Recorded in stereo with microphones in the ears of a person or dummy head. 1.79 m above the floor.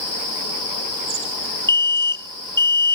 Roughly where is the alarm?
Centre.